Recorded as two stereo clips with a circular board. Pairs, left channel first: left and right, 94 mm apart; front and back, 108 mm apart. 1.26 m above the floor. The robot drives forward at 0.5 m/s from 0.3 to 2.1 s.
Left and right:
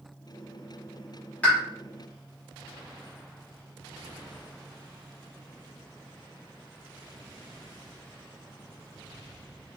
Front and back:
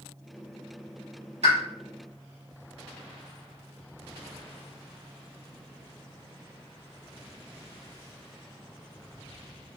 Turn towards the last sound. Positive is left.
turn(degrees=170)